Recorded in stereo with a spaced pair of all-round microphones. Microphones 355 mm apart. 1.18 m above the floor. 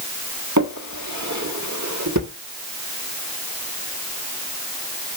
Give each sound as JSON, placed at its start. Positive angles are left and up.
{"t": 0.6, "sound": "a drawer", "side_deg": -55, "distance_m": 1.8}